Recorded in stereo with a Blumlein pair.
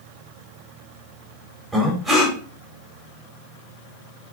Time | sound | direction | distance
1.7 | breathing | 5° right | 0.9 m